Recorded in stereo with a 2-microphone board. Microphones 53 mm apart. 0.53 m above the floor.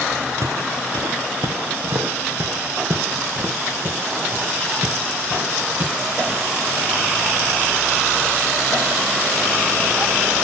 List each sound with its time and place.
0.4 s footsteps: 75° right (ahead or behind), 2.5 m; by 6.4 s 25° right (ahead or behind), 6 m